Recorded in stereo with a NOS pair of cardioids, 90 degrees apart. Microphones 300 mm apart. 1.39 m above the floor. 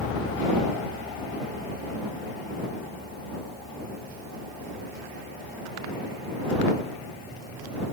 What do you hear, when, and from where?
Only background noise.